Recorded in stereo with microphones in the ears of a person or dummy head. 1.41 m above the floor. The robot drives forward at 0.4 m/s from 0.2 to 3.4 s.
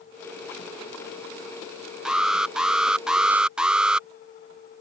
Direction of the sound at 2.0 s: 5° right (ahead or behind).